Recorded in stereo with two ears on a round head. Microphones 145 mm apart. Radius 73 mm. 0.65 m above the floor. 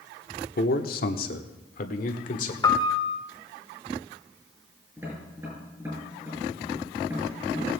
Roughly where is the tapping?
Centre.